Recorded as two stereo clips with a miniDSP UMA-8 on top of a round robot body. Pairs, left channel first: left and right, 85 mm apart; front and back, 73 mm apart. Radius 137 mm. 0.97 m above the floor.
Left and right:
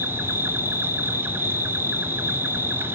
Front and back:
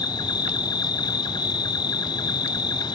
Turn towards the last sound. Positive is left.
turn(degrees=-25)